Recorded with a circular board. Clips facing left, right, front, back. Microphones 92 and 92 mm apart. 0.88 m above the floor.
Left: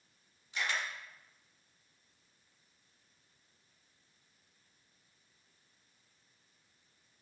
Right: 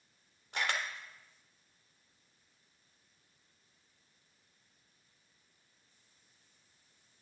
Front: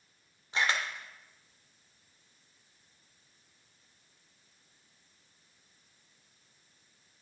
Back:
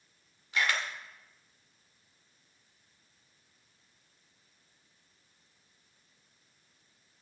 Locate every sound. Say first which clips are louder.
0.5 s a camera shutter: right 1 dB, even; 60° right, 1.6 m